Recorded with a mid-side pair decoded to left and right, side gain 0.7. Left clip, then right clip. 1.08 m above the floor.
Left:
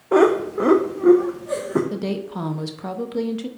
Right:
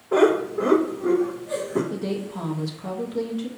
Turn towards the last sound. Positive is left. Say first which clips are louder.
# left 2 dB
turn(degrees=30)